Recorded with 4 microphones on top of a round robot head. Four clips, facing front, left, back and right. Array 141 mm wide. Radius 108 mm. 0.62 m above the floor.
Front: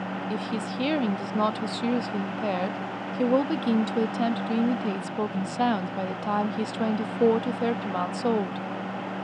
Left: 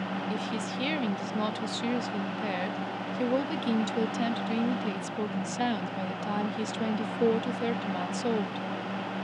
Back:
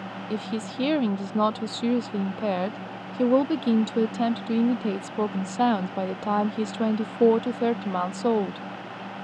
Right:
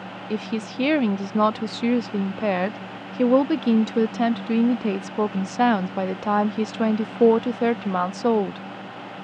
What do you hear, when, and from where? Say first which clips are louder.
0.3 s a woman speaking: right 5 dB, back 3 dB; 105° right